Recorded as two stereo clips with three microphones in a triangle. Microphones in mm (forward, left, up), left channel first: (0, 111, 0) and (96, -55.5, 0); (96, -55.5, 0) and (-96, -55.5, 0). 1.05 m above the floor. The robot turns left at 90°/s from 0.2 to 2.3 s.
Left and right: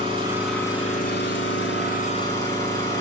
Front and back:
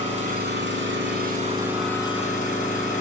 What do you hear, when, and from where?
0.0 s an engine running: 125° right, 5.5 m; by 3.0 s 50° left, 5.5 m